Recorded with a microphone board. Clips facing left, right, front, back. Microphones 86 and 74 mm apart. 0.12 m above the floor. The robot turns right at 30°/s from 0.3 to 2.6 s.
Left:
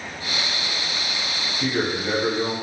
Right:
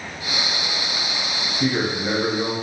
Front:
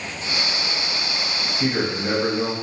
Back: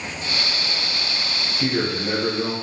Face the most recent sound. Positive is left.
turn(degrees=-20)